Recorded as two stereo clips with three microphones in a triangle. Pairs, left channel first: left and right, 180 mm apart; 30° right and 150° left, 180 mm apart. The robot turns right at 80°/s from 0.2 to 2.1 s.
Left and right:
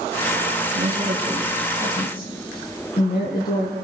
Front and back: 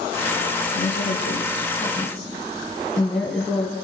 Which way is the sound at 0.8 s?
55° right.